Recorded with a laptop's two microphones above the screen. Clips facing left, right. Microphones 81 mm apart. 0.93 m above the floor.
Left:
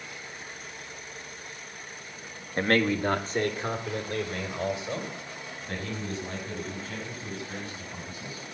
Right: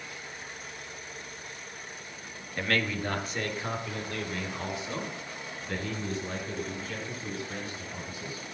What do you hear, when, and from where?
2.6 s a man speaking: 35° left (ahead or behind), 0.8 m